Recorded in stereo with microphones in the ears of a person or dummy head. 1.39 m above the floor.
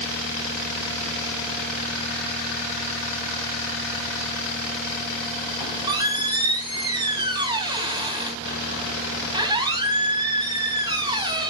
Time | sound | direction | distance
5.6 | a squeak | 20° right (ahead or behind) | 2 m